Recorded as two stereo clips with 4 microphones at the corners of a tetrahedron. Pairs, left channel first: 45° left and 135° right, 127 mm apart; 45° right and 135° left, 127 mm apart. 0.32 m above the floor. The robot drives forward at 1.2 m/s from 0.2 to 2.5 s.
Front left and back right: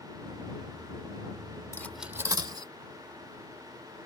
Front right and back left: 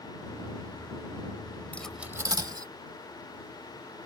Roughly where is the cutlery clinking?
Ahead.